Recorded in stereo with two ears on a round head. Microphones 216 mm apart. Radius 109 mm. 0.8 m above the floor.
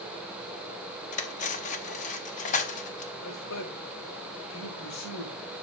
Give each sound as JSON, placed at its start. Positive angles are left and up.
{"t": 1.1, "sound": "cutlery clinking", "side_deg": 30, "distance_m": 0.8}
{"t": 3.2, "sound": "a man speaking", "side_deg": 75, "distance_m": 3.5}